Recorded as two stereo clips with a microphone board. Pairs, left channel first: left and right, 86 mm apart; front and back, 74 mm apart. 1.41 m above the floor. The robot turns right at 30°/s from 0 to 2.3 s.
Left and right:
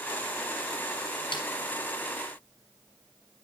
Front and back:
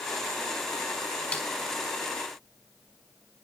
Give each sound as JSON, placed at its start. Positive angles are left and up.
{"t": 1.3, "sound": "a snare drum", "azimuth_deg": 70, "distance_m": 3.5}